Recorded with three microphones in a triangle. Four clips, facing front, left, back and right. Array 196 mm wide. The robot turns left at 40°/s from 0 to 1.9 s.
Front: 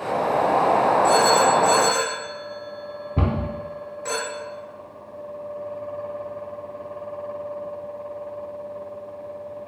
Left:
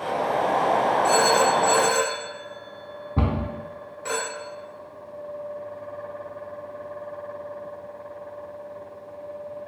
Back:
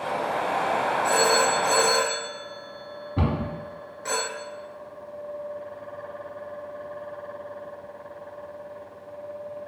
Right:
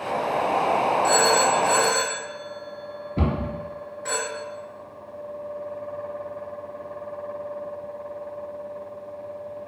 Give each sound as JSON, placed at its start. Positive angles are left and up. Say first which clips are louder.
{"t": 1.0, "sound": "a phone ringing", "louder": "left 1 dB, front 2 dB", "azimuth_deg": 95, "distance_m": 0.8}
{"t": 3.2, "sound": "a cupboard door", "louder": "even, front 1 dB", "azimuth_deg": 65, "distance_m": 0.9}